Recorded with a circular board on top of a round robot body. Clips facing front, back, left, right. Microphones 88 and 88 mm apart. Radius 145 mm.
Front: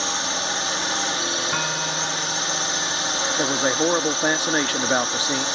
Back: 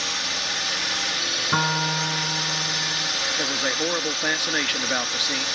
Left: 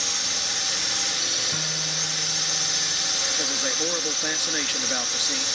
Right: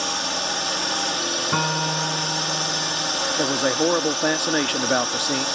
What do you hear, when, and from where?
0.0 s a drone: 55° right
1.5 s a guitar: 115° right
3.4 s a man speaking: 60° right